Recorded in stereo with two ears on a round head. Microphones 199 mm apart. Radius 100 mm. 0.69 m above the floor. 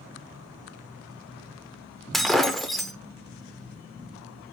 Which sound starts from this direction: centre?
Breaking glass, at 2.1 s.